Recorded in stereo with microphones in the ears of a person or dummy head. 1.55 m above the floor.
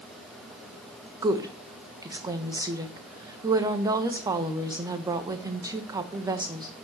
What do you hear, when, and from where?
1.2 s a woman speaking: 15° right (ahead or behind), 1.2 m